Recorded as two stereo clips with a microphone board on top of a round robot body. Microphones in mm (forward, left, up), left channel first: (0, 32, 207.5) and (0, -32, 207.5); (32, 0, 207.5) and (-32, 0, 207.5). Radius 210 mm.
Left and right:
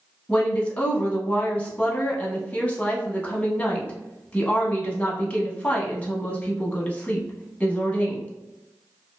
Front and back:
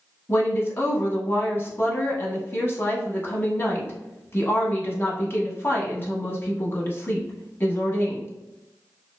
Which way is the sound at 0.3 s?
30° left.